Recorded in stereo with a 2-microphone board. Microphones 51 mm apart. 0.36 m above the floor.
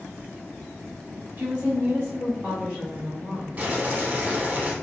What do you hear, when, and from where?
1.4 s a woman speaking: 35° right (ahead or behind), 1.0 m; by 3.5 s 10° right (ahead or behind), 1.5 m
3.6 s boiling: 30° right (ahead or behind), 0.6 m